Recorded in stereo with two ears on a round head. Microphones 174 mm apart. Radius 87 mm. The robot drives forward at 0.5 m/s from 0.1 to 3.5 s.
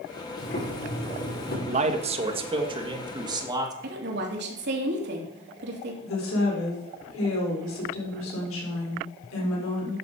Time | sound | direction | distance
0.4 | boiling | 50° left (ahead or behind) | 7.5 m
1.7 | a man speaking | 40° right (ahead or behind) | 1.2 m
3.8 | a woman speaking | 60° right (ahead or behind) | 3 m
6.0 | a woman speaking | 80° left | 4.5 m